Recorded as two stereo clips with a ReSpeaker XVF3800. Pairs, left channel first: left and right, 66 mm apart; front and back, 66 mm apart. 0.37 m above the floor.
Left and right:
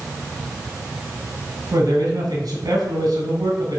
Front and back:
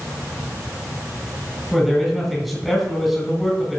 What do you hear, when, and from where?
1.7 s a man speaking: 90° right, 2.5 m